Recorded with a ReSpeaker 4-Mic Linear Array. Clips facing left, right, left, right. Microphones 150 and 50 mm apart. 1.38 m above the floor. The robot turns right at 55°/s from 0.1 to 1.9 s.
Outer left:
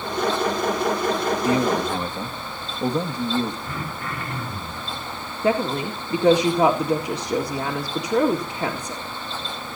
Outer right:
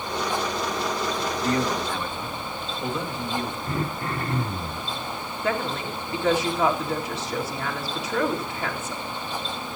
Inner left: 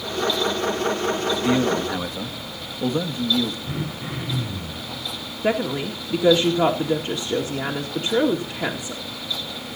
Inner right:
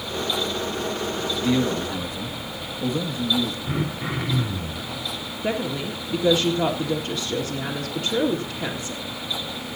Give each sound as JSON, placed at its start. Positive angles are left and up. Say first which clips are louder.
{"t": 1.4, "sound": "a man speaking", "louder": "outer left 3 dB, even", "side_deg": 10, "distance_m": 1.7}
{"t": 3.7, "sound": "throat clearing", "louder": "outer right 3 dB, inner right 3 dB", "side_deg": -30, "distance_m": 4.0}
{"t": 5.4, "sound": "a woman speaking", "louder": "outer left 6 dB, inner left 4 dB", "side_deg": 35, "distance_m": 1.9}